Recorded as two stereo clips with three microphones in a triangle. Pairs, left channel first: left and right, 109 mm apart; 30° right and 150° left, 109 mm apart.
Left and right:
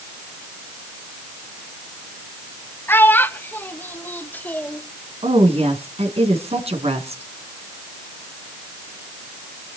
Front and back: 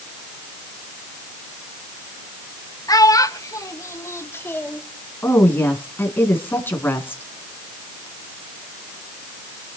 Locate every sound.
2.9 s a child speaking: 20° left, 1.7 m; by 4.8 s 30° left, 0.9 m
5.2 s a woman speaking: 100° right, 3 m